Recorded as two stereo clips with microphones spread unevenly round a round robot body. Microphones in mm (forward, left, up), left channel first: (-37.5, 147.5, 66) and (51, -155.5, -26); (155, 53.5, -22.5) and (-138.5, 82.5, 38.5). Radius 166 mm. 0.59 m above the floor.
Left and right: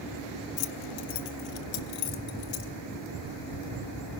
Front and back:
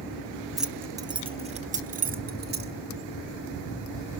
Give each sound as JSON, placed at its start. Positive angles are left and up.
{"t": 0.6, "sound": "keys jangling", "azimuth_deg": 80, "distance_m": 0.8}